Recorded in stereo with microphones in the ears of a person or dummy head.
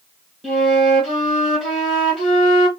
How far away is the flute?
About 1.8 m.